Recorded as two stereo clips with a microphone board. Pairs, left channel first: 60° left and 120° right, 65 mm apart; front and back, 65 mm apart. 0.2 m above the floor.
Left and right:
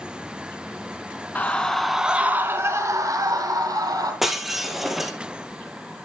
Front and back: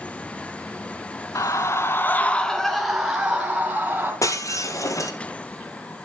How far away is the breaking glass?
About 1.6 m.